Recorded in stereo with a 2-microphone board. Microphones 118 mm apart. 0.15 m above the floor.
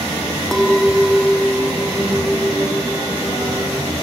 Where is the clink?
5° left (ahead or behind).